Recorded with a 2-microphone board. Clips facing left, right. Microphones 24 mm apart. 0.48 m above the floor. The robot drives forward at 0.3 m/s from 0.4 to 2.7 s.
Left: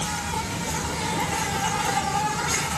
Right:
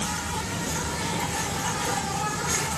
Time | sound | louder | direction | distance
0.0 | an insect | left 2 dB | 60° left (ahead or behind) | 1.3 m